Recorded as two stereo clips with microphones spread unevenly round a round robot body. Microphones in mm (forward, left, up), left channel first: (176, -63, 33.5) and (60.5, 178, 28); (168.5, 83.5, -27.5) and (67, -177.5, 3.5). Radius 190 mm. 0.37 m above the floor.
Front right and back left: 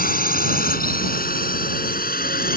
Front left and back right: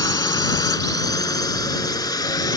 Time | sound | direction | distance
0.0 | a drone | 10° right | ?